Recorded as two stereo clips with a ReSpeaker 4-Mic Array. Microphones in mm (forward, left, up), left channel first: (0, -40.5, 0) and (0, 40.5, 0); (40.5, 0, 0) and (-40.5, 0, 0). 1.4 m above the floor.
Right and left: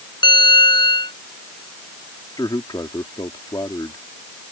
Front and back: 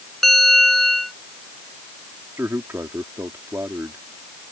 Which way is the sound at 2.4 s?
120° right.